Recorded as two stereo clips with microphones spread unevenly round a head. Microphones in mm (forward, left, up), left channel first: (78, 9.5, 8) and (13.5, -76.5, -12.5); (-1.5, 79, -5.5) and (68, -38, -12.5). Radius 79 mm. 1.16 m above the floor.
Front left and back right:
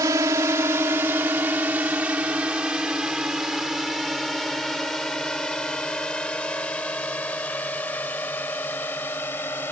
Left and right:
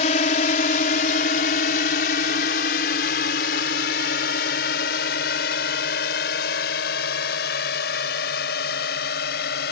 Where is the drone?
165° left; by 9.7 s 130° left.